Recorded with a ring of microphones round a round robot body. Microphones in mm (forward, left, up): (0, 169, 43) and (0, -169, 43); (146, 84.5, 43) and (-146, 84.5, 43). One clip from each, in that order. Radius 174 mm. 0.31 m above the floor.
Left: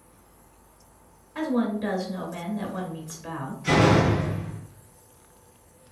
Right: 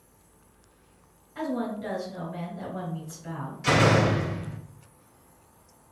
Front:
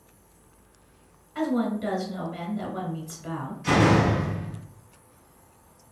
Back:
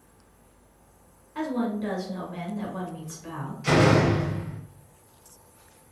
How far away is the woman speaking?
About 1.6 m.